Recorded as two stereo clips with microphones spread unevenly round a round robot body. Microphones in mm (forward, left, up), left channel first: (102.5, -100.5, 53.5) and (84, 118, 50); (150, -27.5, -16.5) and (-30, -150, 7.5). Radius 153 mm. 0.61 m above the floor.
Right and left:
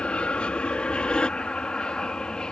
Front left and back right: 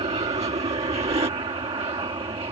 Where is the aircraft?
165° right.